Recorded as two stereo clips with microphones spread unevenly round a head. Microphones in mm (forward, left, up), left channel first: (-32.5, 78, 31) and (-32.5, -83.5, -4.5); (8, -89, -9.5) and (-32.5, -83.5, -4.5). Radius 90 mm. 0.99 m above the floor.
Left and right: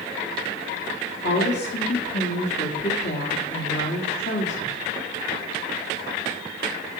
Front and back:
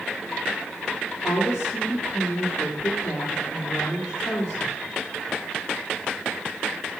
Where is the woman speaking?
55° left, 1.7 m.